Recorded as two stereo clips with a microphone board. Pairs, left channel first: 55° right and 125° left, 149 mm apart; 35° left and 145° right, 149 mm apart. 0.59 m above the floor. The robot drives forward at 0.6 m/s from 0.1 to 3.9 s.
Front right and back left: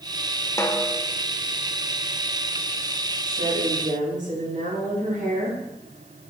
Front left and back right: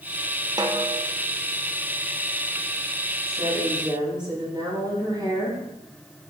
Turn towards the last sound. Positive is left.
turn(degrees=155)